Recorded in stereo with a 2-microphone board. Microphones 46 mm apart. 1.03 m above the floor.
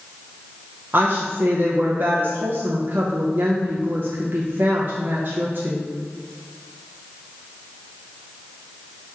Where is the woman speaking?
50° right (ahead or behind), 0.7 m.